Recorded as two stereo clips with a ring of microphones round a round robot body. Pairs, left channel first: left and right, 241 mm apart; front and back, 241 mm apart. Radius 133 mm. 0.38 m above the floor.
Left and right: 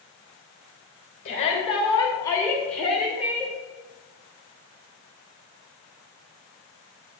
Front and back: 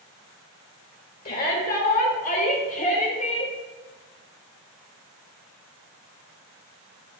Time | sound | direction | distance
1.2 | a shout | 40° left | 2.0 m